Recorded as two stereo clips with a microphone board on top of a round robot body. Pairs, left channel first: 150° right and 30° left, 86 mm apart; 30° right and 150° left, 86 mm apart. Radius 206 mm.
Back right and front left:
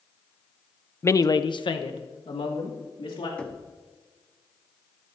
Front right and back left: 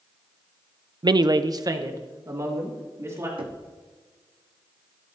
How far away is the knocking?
About 1.1 m.